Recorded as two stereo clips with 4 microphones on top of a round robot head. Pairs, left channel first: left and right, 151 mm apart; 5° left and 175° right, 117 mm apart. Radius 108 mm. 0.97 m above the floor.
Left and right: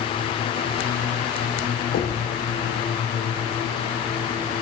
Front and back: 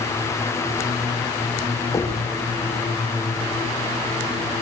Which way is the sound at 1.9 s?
70° left.